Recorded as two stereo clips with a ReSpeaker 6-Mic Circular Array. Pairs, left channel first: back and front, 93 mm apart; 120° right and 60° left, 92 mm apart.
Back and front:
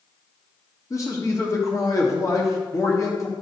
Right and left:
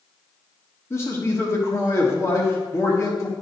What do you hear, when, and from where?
0.9 s a man speaking: 160° right, 1.4 m